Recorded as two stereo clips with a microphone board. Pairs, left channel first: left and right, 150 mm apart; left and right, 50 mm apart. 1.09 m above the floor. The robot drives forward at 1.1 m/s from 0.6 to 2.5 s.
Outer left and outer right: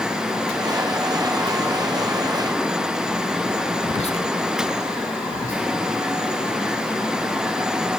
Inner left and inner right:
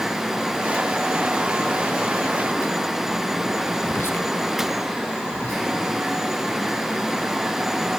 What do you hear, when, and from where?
3.8 s whispering: 45° left (ahead or behind), 0.6 m
5.3 s whispering: 55° left (ahead or behind), 1.5 m